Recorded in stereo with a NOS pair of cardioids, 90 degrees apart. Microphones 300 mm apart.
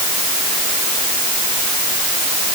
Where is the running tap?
I don't hear a running tap.